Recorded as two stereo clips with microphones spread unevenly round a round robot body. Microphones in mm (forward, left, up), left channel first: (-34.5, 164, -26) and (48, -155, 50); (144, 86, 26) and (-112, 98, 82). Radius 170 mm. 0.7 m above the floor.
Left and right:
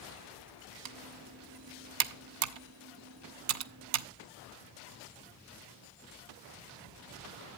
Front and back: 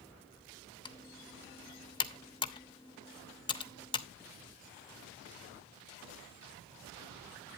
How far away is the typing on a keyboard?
About 0.7 m.